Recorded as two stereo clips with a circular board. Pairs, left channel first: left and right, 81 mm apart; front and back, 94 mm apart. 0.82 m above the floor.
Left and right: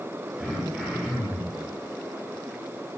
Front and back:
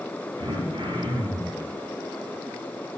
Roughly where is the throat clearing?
Behind.